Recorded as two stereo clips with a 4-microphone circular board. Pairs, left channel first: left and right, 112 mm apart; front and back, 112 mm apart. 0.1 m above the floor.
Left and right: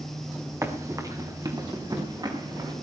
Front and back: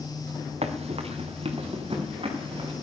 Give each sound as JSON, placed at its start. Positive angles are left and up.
{"t": 0.6, "sound": "running footsteps", "azimuth_deg": -155, "distance_m": 2.5}